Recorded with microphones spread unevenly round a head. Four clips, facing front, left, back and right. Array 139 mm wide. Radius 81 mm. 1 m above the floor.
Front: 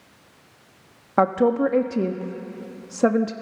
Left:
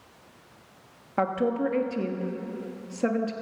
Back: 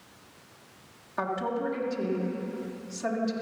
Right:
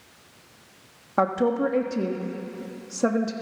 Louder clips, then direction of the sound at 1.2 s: Right 3 dB, front 11 dB; 10° right.